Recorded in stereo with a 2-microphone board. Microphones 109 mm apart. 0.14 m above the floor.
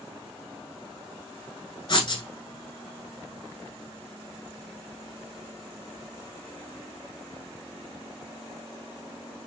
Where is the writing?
45° left (ahead or behind), 0.9 m.